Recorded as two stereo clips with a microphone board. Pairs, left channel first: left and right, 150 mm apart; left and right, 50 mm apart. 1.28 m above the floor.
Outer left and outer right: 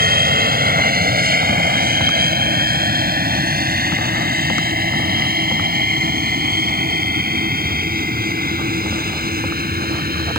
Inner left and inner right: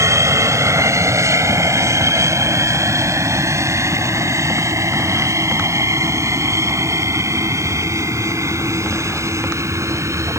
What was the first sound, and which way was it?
An aircraft, 80° right.